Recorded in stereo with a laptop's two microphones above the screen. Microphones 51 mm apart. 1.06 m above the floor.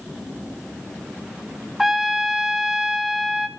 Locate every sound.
1.8 s a trumpet: 5° right (ahead or behind), 1.8 m